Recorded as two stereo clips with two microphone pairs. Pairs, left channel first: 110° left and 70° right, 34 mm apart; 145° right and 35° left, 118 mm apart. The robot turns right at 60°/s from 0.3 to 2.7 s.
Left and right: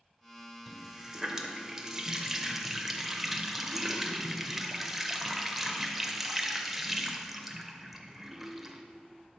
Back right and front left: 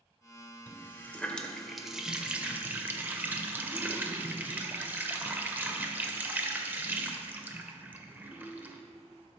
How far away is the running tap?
About 0.5 m.